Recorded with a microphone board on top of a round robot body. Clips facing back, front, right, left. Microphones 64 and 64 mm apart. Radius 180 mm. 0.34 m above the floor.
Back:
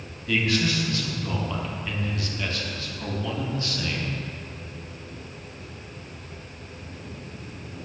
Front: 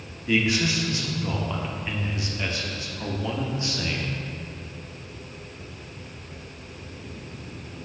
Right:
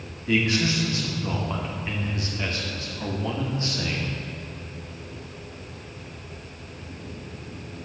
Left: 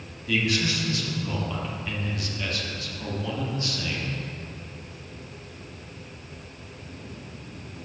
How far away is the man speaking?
About 1.4 m.